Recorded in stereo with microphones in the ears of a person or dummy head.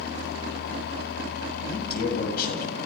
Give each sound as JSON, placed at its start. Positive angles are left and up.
{"t": 1.7, "sound": "a man speaking", "side_deg": 60, "distance_m": 7.5}